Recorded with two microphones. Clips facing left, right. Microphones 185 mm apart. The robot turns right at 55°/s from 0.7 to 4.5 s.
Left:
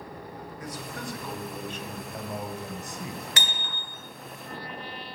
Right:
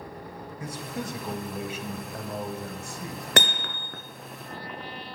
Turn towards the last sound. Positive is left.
turn(degrees=-55)